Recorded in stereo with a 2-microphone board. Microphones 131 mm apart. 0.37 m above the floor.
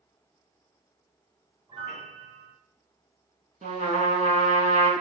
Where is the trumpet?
70° right (ahead or behind), 0.8 m.